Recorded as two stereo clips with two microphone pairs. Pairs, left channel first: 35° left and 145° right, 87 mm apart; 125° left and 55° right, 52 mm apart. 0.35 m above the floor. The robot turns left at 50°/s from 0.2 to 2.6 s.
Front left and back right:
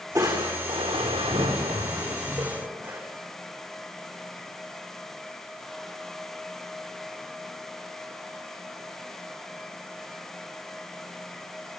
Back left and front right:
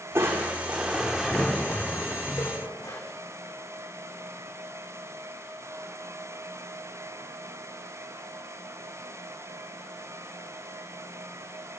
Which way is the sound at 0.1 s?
95° right.